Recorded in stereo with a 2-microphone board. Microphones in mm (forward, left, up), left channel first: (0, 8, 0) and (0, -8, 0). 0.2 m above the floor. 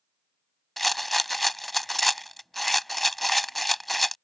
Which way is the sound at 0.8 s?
5° left (ahead or behind).